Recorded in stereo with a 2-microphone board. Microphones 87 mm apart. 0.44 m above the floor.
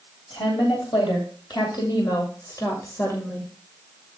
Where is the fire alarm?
I don't hear a fire alarm.